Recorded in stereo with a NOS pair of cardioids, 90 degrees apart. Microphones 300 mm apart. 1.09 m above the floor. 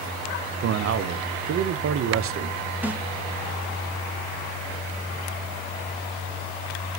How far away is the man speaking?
About 0.5 m.